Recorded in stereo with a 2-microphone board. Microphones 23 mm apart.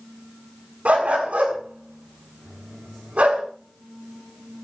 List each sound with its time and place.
0.8 s a dog barking: 80° right, 7 m